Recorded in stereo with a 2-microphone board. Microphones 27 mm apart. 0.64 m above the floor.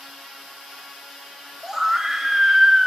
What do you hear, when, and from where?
1.6 s a scream: 15° right (ahead or behind), 3 m